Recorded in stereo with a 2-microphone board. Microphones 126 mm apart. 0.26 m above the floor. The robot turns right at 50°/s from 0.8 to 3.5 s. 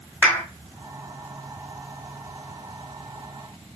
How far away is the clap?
About 1.1 m.